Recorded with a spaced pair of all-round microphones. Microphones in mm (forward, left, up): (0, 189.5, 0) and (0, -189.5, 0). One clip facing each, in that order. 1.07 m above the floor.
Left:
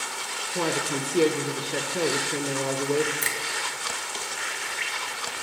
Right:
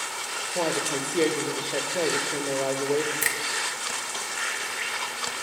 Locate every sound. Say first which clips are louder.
0.6 s a woman speaking: even; 20° left (ahead or behind), 0.6 m
3.2 s a finger snap: even; 40° right (ahead or behind), 0.5 m